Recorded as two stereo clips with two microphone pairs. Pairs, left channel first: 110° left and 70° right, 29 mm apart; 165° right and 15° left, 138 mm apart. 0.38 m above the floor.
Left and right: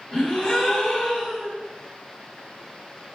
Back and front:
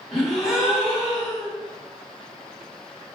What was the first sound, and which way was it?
A gasp, 105° left.